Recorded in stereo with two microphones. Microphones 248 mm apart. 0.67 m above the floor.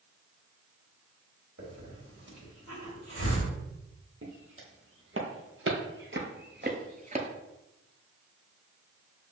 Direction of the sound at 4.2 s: 55° right (ahead or behind).